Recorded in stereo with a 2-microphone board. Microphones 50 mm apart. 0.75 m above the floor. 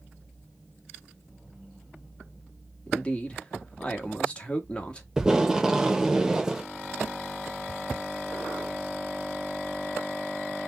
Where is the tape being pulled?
15° right (ahead or behind), 0.6 m.